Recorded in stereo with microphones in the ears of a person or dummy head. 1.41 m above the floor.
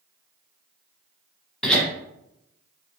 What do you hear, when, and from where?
1.6 s laughter: 5° left (ahead or behind), 1.4 m